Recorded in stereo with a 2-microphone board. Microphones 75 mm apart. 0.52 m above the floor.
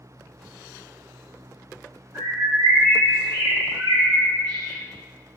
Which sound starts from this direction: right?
A bird, at 2.1 s.